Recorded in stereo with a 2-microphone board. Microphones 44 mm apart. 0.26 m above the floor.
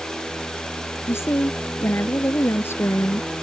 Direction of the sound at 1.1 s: 70° left (ahead or behind).